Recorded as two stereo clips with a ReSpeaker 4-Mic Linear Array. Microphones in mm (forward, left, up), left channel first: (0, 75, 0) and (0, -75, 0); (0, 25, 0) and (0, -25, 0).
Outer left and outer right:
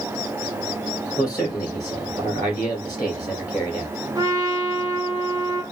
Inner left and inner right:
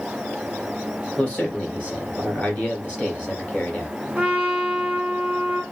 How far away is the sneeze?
No sneeze in this recording.